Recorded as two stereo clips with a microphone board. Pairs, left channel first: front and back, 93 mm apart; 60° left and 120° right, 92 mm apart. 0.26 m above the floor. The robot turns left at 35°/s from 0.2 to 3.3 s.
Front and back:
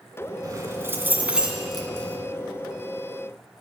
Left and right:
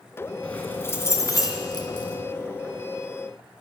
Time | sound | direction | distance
0.4 | keys jangling | 135° left | 1.9 m